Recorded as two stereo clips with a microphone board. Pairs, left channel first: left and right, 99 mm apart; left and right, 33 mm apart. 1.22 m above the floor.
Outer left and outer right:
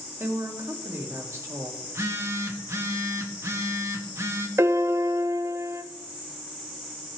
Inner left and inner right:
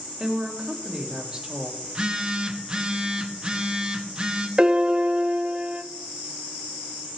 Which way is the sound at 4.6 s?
25° right (ahead or behind).